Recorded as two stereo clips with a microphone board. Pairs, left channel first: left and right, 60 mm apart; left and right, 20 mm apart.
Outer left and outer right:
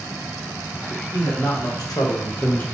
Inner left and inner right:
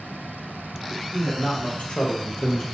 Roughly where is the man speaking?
Left.